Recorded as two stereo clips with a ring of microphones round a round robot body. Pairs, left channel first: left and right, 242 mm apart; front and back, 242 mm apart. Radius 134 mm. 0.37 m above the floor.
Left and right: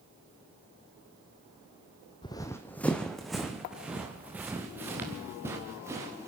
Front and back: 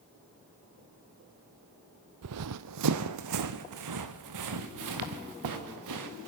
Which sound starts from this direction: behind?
Running footsteps, at 2.2 s.